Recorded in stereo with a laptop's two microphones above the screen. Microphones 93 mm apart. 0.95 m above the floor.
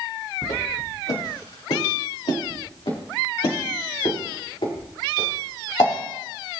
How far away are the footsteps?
About 4 m.